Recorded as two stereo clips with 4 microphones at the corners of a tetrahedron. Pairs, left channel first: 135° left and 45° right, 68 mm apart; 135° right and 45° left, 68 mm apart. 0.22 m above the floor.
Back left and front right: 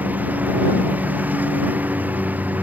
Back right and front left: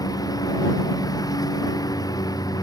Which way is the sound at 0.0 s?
110° right.